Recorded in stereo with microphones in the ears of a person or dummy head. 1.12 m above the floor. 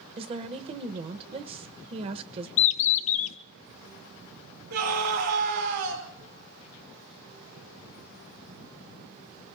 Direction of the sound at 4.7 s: 65° right (ahead or behind).